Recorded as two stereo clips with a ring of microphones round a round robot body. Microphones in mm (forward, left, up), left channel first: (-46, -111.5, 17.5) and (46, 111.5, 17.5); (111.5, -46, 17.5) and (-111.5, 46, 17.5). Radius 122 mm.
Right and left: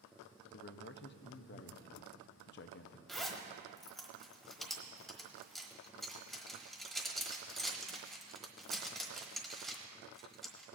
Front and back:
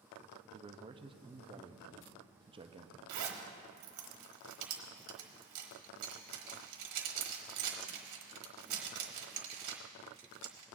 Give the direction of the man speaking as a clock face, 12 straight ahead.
5 o'clock.